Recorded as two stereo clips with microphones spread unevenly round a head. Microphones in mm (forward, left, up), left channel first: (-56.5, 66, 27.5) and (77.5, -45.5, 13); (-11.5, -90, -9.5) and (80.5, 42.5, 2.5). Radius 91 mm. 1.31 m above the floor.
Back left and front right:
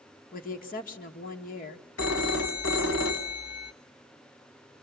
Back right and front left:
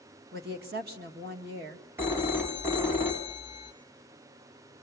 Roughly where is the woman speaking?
Left.